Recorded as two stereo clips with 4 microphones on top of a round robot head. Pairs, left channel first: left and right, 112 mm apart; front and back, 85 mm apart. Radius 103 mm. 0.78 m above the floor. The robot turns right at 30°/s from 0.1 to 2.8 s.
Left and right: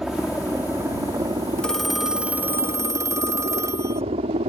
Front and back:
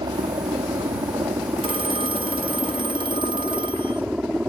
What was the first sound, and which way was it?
A helicopter, 175° right.